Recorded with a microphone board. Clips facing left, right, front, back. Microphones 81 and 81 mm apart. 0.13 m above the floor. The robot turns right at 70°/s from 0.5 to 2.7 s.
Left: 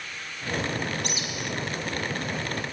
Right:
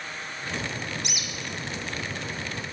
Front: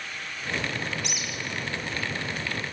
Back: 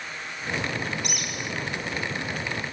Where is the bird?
140° left, 3 m; by 1.5 s 175° left, 3 m.